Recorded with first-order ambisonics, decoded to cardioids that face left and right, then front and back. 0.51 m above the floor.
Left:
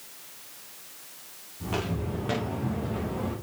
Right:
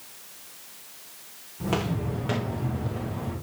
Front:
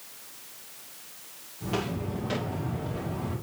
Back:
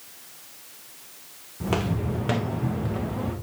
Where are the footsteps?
150° right, 2.5 m; by 3.4 s 155° left, 3 m.